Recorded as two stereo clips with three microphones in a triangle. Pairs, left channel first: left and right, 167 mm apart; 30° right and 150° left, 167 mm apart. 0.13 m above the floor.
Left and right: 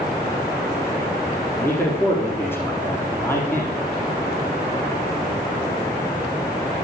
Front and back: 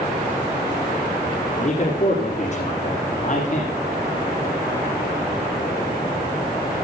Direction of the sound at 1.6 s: 15° left.